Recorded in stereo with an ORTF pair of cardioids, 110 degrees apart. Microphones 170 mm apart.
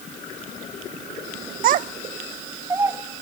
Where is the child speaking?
60° right, 0.6 m; by 3.0 s 15° right, 1.1 m.